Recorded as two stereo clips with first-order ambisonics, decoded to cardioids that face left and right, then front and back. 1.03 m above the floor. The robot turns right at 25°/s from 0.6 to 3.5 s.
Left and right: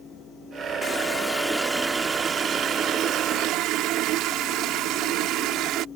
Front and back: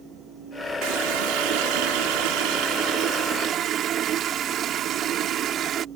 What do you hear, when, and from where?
0.8 s a running tap: 165° left; by 5.8 s 130° right